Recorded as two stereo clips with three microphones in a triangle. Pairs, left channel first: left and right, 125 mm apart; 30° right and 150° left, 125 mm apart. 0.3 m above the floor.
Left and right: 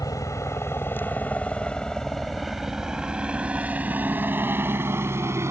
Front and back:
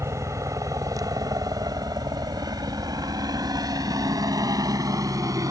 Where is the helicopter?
110° left; by 5.5 s 155° right.